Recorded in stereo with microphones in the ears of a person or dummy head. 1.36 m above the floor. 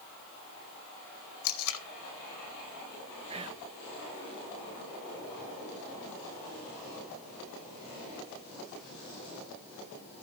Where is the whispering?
30° right (ahead or behind), 1.1 m.